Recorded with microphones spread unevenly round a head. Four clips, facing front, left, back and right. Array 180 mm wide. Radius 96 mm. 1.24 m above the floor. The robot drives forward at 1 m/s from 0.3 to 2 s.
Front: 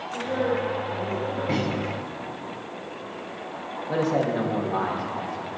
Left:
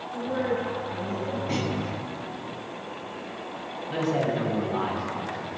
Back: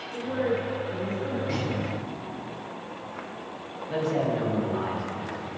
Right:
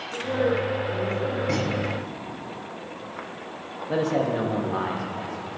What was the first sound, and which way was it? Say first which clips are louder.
A woman speaking: right 3 dB, front 2 dB; 100° right.